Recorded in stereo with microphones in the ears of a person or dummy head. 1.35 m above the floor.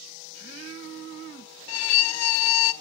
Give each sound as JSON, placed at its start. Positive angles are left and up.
{"t": 1.7, "sound": "a violin", "side_deg": 85, "distance_m": 0.6}